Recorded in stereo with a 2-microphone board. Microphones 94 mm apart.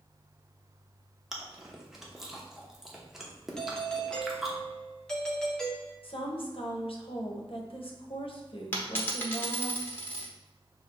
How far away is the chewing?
About 0.8 m.